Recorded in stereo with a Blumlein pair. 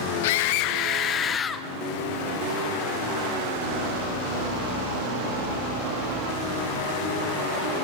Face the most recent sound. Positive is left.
turn(degrees=15)